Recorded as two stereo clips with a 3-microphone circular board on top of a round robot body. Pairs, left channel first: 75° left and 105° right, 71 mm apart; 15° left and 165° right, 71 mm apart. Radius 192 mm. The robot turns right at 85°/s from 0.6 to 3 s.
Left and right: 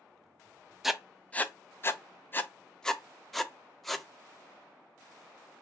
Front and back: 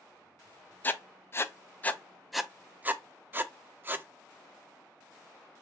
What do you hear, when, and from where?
0.8 s writing: 20° right, 0.5 m; by 4.0 s 160° left, 0.5 m